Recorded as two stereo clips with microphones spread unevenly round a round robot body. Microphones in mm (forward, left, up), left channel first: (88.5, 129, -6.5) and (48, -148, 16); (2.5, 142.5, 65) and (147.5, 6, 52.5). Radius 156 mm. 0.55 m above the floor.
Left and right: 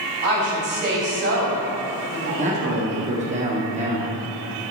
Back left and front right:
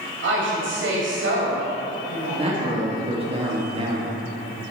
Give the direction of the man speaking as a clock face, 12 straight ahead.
2 o'clock.